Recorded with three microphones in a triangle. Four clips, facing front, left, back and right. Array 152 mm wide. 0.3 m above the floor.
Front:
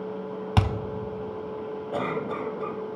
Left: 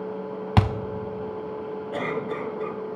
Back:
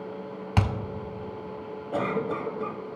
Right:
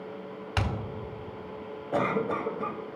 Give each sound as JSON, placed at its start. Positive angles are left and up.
{"t": 0.6, "sound": "a thud", "azimuth_deg": 85, "distance_m": 0.5}
{"t": 1.9, "sound": "a cough", "azimuth_deg": -90, "distance_m": 1.1}